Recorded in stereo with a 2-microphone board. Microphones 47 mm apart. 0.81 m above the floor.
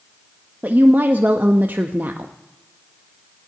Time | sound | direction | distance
0.6 | a woman speaking | 40° right (ahead or behind) | 0.6 m